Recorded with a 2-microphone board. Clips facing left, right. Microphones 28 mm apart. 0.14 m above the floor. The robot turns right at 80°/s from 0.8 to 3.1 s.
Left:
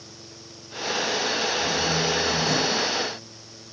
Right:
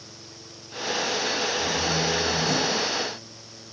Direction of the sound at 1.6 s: 80° right.